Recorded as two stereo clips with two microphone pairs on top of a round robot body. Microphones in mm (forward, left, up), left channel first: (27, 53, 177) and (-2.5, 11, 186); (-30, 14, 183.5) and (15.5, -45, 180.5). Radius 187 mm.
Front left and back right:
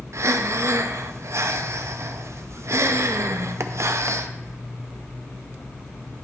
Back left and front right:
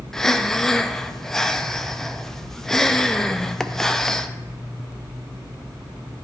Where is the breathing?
145° right, 0.6 m.